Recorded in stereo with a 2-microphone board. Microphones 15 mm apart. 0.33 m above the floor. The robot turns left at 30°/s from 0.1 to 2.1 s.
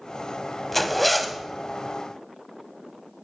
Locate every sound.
0.7 s a zipper: 15° left (ahead or behind), 0.5 m; by 1.4 s 5° right (ahead or behind), 0.5 m